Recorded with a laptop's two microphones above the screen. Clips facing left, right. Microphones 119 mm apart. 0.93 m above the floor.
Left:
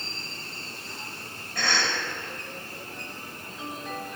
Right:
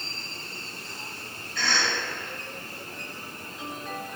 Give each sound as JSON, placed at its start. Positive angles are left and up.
{"t": 1.6, "sound": "a cough", "side_deg": 55, "distance_m": 4.0}